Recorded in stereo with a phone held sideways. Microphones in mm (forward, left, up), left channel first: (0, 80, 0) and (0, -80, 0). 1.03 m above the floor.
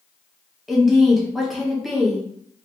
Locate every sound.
0.7 s a woman speaking: centre (ahead or behind), 1.0 m